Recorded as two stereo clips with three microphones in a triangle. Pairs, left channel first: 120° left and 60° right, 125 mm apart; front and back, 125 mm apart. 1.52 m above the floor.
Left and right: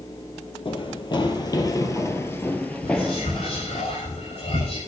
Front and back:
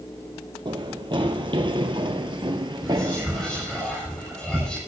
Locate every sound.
0.7 s running footsteps: 145° left, 2 m; by 3.8 s 145° right, 1.9 m
2.8 s whispering: 85° left, 6 m